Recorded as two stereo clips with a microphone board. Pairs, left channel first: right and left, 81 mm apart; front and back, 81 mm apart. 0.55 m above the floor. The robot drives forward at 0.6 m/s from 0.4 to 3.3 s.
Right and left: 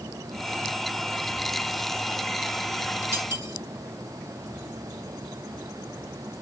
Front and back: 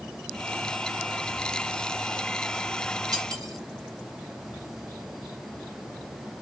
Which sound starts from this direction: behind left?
Cutlery clinking, at 3.1 s.